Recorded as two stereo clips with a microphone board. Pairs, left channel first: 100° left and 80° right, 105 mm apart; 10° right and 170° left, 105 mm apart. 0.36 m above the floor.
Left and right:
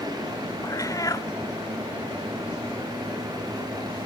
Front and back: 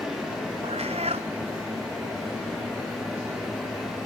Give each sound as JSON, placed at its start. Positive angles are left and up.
{"t": 0.6, "sound": "a cat meowing", "azimuth_deg": 160}